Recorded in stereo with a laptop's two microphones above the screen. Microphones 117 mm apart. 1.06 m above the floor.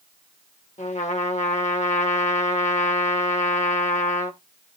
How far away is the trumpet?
About 1.2 m.